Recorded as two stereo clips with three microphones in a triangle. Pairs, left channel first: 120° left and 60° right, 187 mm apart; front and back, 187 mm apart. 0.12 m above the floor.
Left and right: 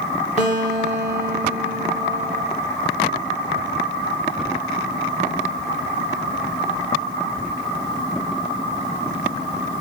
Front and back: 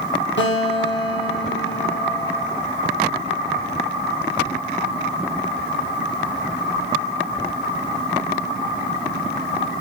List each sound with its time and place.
0.4 s a guitar: 10° right, 3.5 m